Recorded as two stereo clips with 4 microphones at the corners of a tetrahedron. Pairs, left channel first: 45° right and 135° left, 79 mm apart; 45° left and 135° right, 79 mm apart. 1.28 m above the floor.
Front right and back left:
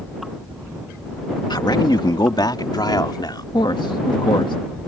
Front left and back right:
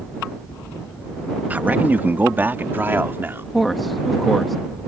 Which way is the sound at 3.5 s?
45° right.